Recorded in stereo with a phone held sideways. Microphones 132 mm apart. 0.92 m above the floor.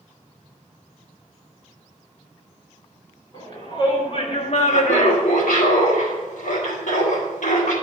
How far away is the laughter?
About 2.5 m.